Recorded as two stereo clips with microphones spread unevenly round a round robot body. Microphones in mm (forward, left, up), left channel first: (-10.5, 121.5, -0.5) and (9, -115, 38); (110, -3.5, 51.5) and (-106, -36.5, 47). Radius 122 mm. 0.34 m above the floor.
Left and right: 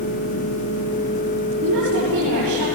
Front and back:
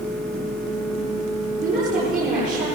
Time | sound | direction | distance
1.6 | a woman speaking | 125° right | 9.5 m